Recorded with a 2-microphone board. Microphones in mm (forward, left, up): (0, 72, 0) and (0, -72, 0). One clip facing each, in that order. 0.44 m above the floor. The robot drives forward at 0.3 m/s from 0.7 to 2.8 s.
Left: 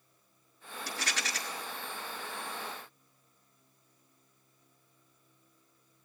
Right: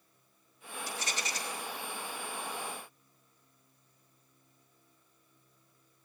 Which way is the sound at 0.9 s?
90° left.